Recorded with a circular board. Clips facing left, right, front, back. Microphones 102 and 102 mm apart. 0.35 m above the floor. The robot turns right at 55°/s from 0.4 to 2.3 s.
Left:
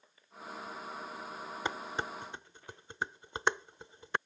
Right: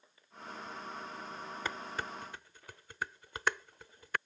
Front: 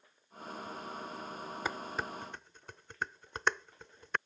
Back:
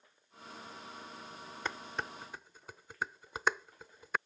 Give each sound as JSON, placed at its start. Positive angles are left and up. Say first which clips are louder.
{"t": 1.6, "sound": "dishes clattering", "louder": "left 3 dB, front 1 dB", "azimuth_deg": 65}